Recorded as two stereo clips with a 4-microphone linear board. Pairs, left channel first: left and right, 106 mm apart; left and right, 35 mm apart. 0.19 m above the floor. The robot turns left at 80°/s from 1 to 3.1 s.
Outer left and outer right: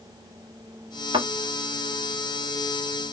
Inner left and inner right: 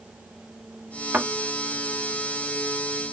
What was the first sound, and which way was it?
A thud, 55° right (ahead or behind).